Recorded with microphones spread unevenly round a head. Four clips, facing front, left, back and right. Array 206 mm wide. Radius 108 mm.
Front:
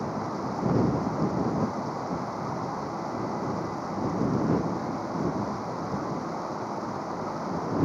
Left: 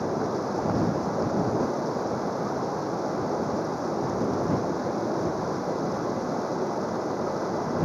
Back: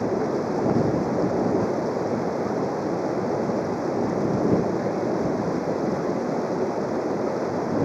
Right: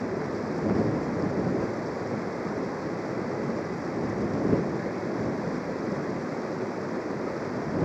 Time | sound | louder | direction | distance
0.0 | running water | left 3 dB, back 7 dB | 175° left | ?